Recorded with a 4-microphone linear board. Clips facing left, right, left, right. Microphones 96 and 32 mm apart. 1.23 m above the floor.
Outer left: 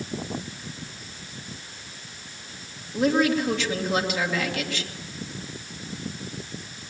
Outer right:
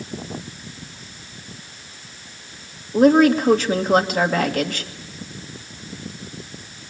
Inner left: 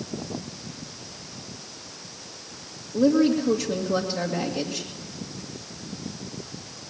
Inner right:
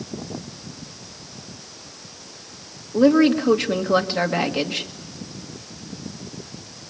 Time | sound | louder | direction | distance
2.9 | a woman speaking | outer right 8 dB, inner right 4 dB | 45° right (ahead or behind) | 2 m